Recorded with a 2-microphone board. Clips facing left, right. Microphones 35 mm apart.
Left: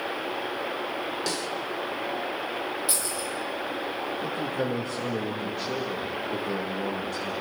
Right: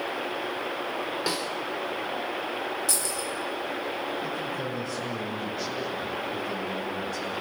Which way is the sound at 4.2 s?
60° left (ahead or behind).